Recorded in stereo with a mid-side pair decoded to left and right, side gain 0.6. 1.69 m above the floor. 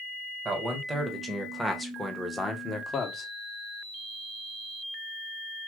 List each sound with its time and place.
0.5 s a man speaking: 25° right, 1.6 m; by 3.3 s 40° left, 1.1 m